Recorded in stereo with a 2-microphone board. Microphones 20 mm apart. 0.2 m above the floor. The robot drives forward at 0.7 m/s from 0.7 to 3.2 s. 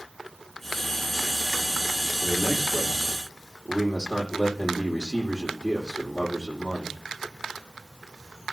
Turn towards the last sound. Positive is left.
turn(degrees=-20)  # may be behind; listen again after turning